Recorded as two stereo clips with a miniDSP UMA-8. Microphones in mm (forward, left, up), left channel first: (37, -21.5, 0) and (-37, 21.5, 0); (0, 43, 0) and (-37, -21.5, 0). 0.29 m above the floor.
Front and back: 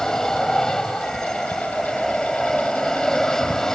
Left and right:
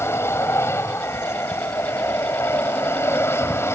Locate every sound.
0.0 s an aircraft: 50° left